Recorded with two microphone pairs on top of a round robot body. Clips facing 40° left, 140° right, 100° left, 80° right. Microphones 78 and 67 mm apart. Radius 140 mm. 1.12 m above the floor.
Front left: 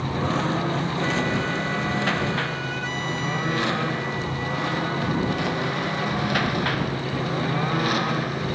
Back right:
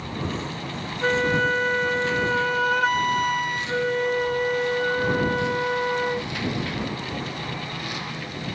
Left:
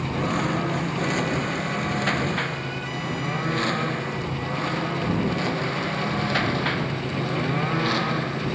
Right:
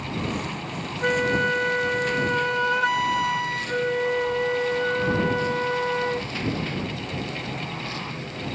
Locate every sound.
0.0 s a lawn mower: 70° left; by 8.6 s 75° left
1.0 s a flute: 105° right